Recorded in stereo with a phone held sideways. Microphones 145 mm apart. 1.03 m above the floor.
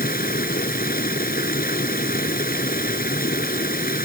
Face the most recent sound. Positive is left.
turn(degrees=90)